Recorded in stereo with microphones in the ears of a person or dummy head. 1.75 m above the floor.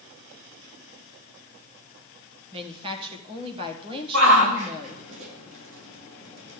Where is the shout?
85° right, 2.5 m.